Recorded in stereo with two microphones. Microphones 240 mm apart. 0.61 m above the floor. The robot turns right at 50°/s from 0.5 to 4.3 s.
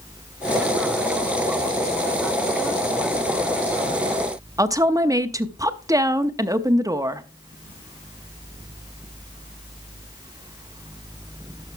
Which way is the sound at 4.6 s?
15° right (ahead or behind).